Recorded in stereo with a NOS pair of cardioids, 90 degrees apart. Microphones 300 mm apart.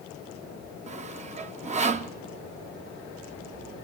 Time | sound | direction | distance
0.9 | sawing | 25° right | 1.1 m